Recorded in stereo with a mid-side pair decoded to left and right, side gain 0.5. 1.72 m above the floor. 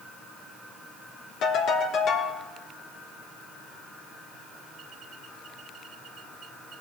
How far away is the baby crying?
No baby crying in this recording.